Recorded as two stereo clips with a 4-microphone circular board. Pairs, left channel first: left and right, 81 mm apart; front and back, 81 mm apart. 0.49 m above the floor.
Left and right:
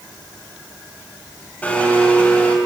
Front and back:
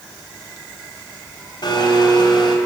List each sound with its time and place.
1.6 s a blender: 20° left, 2.5 m